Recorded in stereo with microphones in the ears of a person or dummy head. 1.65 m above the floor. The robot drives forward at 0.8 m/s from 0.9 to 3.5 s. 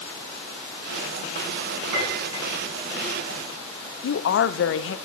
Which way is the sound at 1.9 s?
70° right (ahead or behind).